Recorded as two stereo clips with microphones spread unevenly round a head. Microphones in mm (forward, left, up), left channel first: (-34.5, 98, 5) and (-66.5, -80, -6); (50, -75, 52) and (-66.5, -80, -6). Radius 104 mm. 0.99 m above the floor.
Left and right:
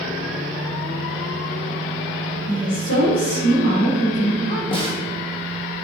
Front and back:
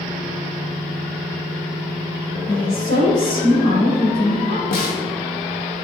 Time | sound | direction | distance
2.5 | a woman speaking | 45° left | 3.5 m
4.7 | a snare drum | 10° left | 1.4 m